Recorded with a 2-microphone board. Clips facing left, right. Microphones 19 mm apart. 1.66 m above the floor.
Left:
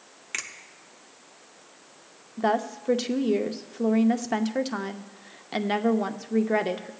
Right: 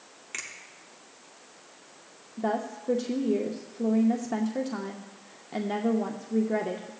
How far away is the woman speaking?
About 0.6 m.